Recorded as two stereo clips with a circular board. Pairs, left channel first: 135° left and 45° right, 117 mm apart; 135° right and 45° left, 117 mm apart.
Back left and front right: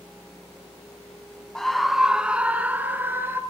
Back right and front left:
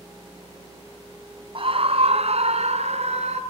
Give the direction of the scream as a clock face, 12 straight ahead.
10 o'clock.